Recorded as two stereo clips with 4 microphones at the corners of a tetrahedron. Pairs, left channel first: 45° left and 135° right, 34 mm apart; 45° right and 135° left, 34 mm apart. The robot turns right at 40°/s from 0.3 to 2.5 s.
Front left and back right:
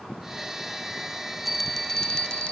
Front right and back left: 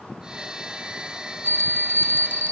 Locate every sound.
1.4 s a bell: 50° right, 0.5 m; by 2.5 s 10° right, 0.5 m